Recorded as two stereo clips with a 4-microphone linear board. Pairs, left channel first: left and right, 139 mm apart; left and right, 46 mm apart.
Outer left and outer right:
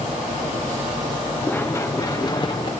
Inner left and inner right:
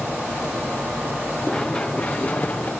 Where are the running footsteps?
15° left (ahead or behind), 1.6 m; by 2.7 s 35° left (ahead or behind), 2.5 m.